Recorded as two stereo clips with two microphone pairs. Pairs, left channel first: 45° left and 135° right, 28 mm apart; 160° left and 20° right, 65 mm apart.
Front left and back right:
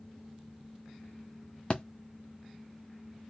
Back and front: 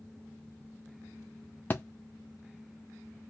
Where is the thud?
100° left, 0.5 m.